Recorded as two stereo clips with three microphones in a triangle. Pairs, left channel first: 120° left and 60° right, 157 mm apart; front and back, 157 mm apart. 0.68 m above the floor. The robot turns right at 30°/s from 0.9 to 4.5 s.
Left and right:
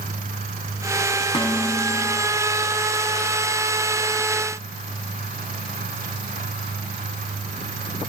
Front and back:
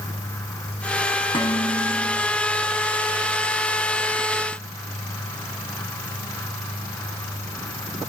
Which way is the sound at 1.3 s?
60° left.